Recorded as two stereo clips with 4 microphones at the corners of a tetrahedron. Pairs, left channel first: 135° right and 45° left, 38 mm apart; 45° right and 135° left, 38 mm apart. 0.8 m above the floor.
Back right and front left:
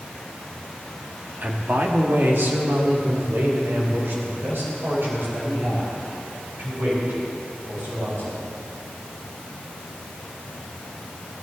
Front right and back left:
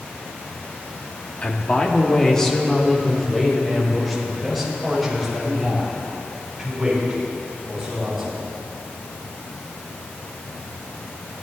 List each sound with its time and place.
1.4 s a man speaking: 5° left, 1.1 m; by 8.5 s 55° left, 5.5 m